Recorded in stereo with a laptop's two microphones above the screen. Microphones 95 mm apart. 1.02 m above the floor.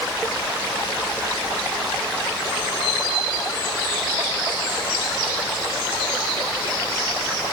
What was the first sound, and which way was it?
Only background noise.